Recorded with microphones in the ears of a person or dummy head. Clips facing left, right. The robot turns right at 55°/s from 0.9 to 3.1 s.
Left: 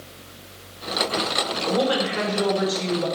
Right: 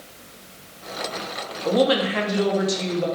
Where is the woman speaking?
105° right, 0.8 m; by 3.1 s 25° right, 0.8 m.